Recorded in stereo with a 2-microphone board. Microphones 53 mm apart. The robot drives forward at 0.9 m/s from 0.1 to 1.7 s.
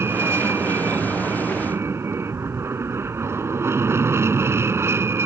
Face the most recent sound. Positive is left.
turn(degrees=-55)  # may be behind; listen again after turning